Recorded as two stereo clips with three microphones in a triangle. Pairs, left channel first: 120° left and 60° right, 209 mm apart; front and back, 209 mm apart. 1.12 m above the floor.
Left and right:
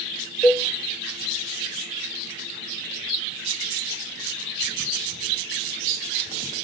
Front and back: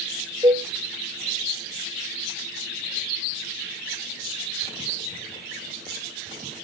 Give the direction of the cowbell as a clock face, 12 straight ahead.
5 o'clock.